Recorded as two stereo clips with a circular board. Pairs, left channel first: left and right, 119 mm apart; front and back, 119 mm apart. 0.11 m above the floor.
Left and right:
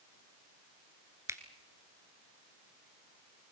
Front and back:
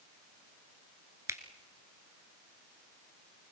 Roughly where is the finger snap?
Behind right.